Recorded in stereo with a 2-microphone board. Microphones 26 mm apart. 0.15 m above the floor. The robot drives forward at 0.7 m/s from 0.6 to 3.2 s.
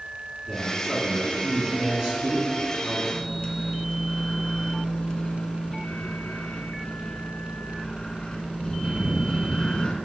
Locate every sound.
0.5 s a man speaking: 25° right (ahead or behind), 1.9 m
3.1 s a microwave: 30° left (ahead or behind), 1.0 m